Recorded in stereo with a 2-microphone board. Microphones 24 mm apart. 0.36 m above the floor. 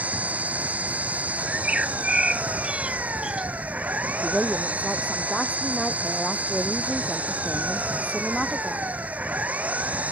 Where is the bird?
40° right (ahead or behind).